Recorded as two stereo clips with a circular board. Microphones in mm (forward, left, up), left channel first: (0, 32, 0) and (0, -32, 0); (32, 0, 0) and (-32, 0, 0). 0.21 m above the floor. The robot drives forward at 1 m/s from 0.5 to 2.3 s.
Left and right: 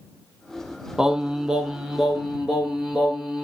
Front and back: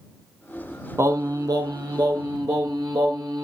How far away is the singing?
About 0.8 m.